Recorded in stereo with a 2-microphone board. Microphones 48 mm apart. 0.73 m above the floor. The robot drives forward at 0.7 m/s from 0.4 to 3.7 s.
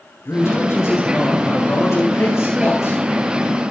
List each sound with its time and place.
0.2 s a man speaking: 75° left (ahead or behind), 8 m; by 3.0 s 85° left, 7.5 m